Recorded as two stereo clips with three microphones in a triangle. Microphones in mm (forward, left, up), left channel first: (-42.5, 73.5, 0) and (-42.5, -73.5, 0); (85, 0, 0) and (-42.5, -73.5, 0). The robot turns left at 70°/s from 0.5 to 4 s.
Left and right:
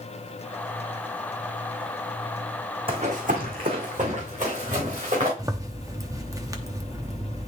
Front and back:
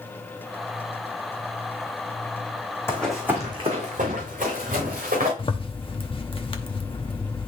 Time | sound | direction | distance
2.9 | running footsteps | 40° right | 2 m
5.4 | a zipper | 25° right | 0.8 m